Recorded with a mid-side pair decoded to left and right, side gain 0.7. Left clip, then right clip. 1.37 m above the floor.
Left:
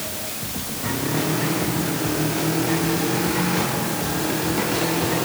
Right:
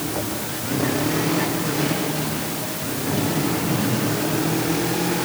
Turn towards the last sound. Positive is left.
No sound to turn to.